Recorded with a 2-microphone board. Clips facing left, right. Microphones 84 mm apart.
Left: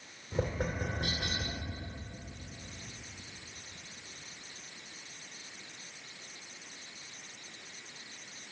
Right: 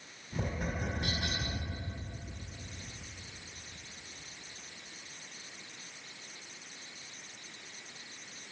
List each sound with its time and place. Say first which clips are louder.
0.3 s tapping: left 3 dB; 60° left (ahead or behind), 2 m